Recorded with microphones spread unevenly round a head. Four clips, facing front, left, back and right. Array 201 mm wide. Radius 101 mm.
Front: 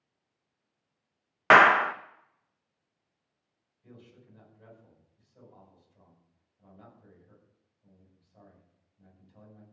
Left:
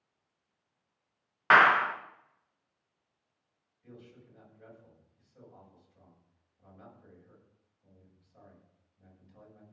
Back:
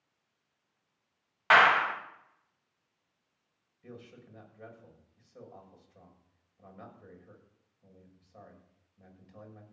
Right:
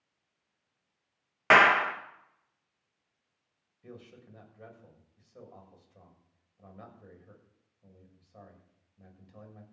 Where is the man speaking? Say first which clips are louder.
Right 3 dB, back 4 dB; 125° right, 7 m.